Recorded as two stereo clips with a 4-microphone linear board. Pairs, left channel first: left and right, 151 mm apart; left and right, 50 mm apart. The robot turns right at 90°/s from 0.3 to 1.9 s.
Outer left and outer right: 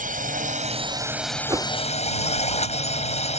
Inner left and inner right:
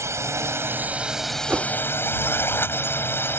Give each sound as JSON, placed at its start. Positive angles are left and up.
{"t": 0.0, "sound": "a drone", "azimuth_deg": -90}
{"t": 1.5, "sound": "a whoosh", "side_deg": -30}